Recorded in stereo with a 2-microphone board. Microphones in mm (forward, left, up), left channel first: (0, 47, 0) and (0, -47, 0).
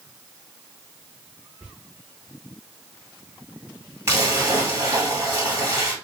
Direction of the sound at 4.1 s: 30° right (ahead or behind).